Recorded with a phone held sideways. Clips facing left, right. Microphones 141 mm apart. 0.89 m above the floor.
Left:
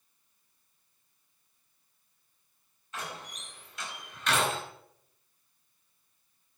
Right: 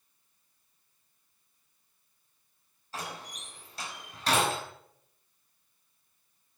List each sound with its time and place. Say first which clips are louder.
2.9 s a door slam: right 1 dB; 35° right (ahead or behind), 5 m